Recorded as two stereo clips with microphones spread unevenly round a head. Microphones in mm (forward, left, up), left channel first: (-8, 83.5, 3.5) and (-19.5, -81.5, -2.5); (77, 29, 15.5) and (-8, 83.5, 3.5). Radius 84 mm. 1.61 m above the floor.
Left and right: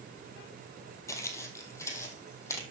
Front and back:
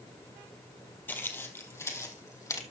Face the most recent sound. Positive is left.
turn(degrees=15)